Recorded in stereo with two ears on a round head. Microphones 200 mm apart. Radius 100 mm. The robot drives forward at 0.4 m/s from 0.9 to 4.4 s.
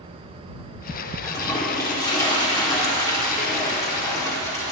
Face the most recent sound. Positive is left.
turn(degrees=15)  # may be behind; listen again after turning